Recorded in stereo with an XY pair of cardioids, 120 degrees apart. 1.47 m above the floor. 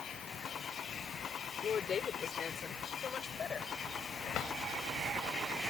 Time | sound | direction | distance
1.6 | a woman speaking | 40° left | ?
4.3 | a drawer | 65° left | ?